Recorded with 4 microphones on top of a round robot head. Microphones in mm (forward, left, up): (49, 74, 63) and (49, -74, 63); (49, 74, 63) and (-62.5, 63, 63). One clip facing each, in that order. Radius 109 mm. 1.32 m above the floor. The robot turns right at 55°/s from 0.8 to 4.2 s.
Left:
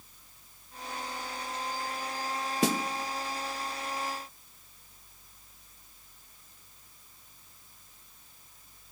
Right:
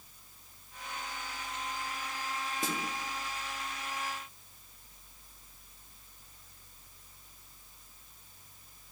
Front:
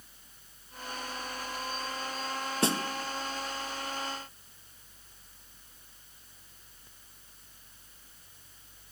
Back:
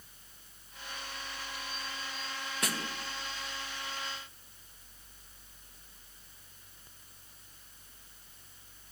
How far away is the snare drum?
About 1.8 m.